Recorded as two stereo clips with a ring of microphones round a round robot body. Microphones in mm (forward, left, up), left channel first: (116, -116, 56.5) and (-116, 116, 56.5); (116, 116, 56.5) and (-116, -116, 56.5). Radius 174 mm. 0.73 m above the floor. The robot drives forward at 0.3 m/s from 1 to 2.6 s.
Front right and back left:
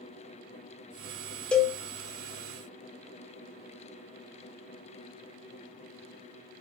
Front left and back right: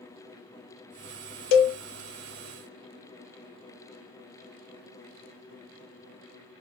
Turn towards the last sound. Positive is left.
turn(degrees=70)